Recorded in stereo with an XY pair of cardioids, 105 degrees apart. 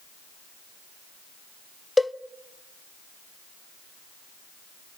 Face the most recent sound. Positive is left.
turn(degrees=10)